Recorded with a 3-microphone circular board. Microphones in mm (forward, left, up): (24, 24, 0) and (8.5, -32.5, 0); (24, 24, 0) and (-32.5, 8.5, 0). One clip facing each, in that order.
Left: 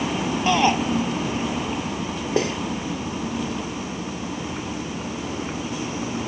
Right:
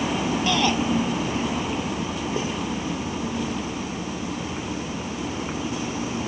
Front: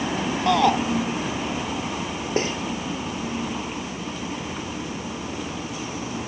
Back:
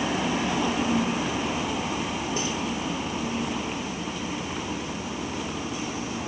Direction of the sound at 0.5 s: 10° left.